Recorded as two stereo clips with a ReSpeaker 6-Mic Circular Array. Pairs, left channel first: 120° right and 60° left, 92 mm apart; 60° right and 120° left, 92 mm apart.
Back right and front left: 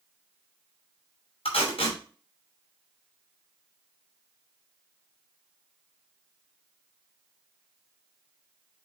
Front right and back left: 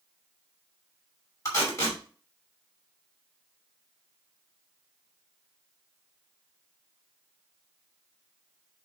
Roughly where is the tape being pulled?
Behind right.